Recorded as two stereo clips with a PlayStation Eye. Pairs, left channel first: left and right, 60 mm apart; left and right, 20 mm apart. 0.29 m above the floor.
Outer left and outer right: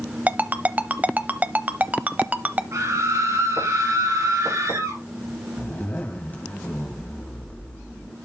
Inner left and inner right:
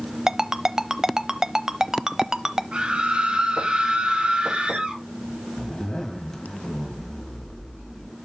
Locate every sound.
0.3 s a ringtone: 25° right (ahead or behind), 0.7 m
2.7 s a scream: 60° right (ahead or behind), 4.5 m
5.6 s a zipper: 30° left (ahead or behind), 1.9 m